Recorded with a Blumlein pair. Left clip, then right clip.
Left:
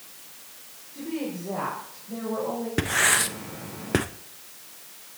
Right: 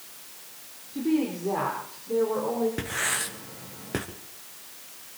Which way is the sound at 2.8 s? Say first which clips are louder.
Left 7 dB; 65° left.